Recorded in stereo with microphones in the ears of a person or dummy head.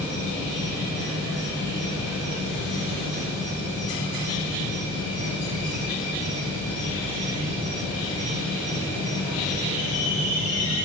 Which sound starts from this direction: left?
An insect, at 0.0 s.